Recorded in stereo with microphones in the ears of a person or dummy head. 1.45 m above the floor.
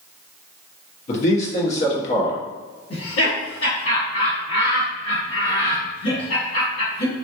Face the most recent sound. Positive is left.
turn(degrees=75)  # may be behind; listen again after turning